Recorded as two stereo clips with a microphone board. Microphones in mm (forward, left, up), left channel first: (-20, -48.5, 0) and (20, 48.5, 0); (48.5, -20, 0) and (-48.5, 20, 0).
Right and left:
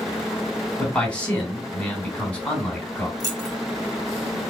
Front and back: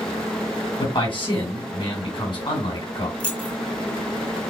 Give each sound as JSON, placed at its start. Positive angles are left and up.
{"t": 0.8, "sound": "a man speaking", "azimuth_deg": -35, "distance_m": 2.5}
{"t": 3.2, "sound": "keys jangling", "azimuth_deg": 50, "distance_m": 1.0}